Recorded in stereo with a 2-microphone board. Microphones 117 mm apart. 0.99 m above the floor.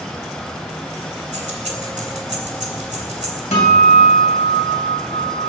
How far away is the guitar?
About 3 m.